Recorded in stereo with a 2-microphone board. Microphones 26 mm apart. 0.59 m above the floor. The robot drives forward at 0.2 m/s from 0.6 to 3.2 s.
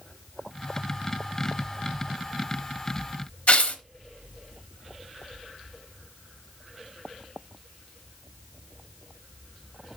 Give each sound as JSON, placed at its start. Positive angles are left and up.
{"t": 3.5, "sound": "tearing paper", "side_deg": 55, "distance_m": 0.9}